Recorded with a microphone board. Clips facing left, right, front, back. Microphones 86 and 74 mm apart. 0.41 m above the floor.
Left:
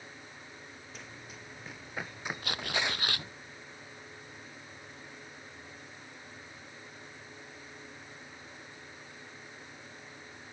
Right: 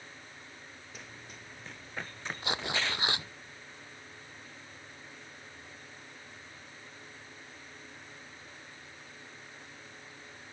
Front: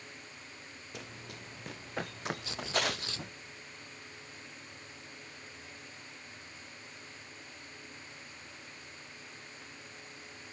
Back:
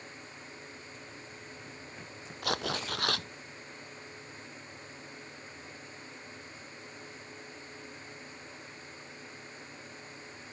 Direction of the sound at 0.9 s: Straight ahead.